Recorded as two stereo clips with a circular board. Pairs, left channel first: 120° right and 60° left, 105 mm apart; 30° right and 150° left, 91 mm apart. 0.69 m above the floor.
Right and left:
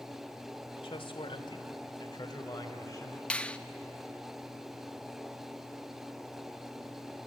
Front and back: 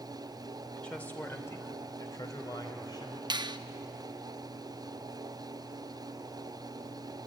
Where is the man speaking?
105° right, 2.5 m; by 3.2 s 60° right, 4 m.